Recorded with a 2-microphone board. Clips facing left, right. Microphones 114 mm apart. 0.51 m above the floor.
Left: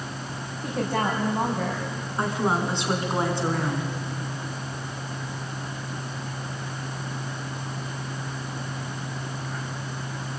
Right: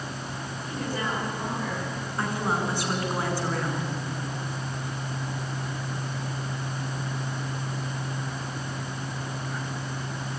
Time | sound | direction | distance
0.6 | a woman speaking | 65° left (ahead or behind) | 3.5 m
2.2 | a woman speaking | 25° left (ahead or behind) | 5 m